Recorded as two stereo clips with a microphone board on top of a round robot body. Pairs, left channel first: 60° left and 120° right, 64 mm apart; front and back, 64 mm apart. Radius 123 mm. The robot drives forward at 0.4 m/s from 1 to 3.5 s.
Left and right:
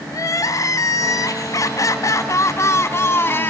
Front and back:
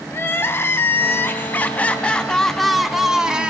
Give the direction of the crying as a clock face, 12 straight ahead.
10 o'clock.